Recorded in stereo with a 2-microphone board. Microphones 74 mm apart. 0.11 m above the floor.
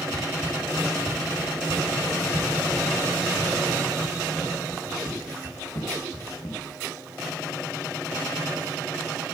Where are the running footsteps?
70° left (ahead or behind), 2.5 m; by 6.6 s 75° left (ahead or behind), 7 m.